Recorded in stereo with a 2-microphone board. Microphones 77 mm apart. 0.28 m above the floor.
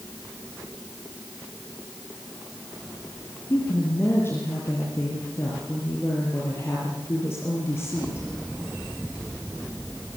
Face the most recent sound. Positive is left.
turn(degrees=30)  # may be behind; listen again after turning